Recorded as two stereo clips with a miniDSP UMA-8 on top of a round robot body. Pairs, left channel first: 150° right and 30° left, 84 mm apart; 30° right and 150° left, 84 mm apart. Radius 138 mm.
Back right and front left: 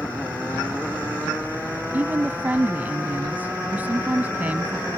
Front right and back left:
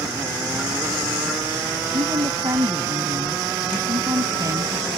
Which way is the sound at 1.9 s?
100° left.